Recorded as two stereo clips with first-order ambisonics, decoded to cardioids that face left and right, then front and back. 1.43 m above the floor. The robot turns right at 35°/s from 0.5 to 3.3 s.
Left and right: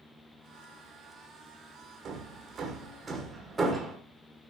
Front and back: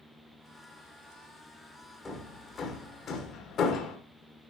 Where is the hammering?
70° right, 1.2 m; by 4.0 s 25° right, 1.2 m.